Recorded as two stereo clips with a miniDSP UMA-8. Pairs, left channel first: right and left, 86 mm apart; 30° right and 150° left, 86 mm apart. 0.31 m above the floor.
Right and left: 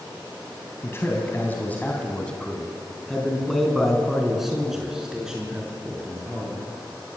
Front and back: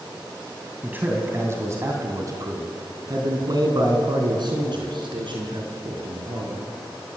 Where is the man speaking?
145° right, 3 m; by 6.6 s 165° left, 6 m.